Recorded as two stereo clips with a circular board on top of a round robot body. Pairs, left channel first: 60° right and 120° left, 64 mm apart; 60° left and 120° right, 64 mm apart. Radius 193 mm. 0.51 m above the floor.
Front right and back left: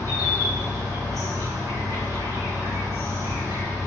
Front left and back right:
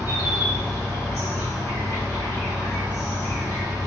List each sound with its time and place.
0.0 s an insect: 100° left, 1.6 m